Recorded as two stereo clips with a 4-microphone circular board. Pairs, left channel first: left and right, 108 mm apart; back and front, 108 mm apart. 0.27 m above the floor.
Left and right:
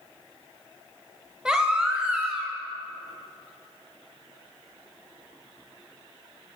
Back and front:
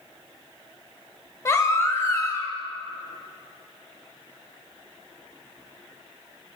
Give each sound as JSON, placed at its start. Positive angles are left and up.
{"t": 1.4, "sound": "a baby crying", "azimuth_deg": -165, "distance_m": 0.5}